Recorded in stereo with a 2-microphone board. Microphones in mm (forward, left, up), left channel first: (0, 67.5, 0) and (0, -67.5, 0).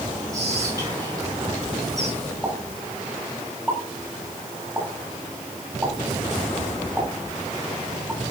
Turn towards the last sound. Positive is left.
turn(degrees=-15)  # may be behind; listen again after turning